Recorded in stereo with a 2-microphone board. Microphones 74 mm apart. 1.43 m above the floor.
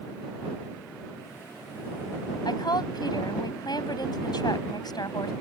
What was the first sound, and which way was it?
A woman speaking, 65° left (ahead or behind).